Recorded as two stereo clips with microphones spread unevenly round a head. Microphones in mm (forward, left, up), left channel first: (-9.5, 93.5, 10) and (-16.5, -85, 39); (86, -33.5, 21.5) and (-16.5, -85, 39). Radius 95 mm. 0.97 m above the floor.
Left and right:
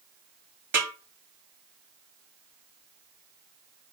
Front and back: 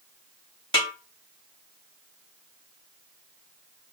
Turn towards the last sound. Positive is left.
turn(degrees=-10)